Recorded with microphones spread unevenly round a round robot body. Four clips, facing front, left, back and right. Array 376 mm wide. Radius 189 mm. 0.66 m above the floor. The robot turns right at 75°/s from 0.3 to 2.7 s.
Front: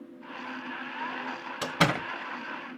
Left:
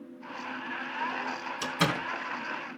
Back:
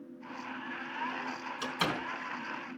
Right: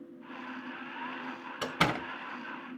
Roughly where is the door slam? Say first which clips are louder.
Even, front 7 dB; ahead right.